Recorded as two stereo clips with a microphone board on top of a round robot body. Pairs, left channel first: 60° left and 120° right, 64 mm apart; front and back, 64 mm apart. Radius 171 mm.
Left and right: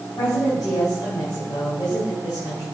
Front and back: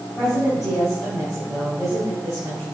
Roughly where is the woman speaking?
Left.